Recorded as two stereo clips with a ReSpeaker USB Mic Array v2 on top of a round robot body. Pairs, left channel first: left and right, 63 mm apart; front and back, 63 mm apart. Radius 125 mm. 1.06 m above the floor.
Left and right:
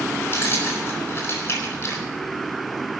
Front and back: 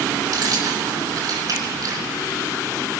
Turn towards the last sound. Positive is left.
turn(degrees=140)